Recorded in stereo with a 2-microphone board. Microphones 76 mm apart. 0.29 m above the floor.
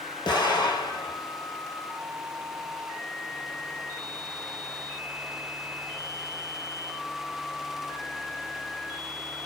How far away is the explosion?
About 1.4 m.